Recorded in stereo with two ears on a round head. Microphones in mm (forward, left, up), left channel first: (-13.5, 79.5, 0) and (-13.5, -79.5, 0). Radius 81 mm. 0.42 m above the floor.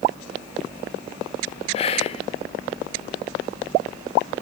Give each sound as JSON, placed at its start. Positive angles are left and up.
{"t": 1.7, "sound": "whispering", "side_deg": 35, "distance_m": 0.9}